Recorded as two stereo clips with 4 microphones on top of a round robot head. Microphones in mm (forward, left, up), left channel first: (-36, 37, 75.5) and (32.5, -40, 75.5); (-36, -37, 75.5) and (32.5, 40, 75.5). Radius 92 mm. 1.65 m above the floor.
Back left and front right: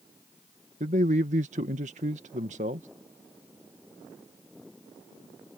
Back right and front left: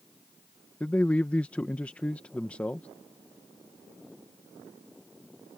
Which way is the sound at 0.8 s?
55° right.